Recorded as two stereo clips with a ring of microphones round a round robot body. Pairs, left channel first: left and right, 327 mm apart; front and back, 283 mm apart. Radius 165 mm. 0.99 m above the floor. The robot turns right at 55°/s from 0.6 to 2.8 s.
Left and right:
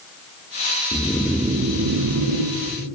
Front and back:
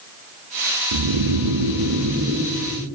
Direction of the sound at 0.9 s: 165° left.